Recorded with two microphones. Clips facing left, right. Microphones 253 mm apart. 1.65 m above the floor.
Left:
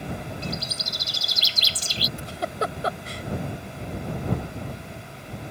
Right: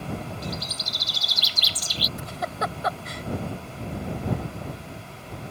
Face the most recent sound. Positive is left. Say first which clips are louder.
# left 3 dB
turn(degrees=35)  # may be behind; listen again after turning